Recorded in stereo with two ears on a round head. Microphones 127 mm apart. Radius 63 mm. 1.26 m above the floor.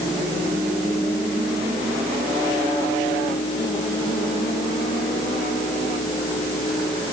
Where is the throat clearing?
No throat clearing in this recording.